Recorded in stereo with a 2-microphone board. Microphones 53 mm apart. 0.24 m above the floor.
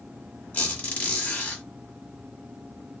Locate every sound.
0.5 s a squeak: 35° left (ahead or behind), 1.3 m